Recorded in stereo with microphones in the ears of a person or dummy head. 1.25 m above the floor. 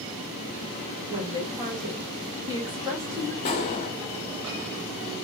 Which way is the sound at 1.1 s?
15° right (ahead or behind).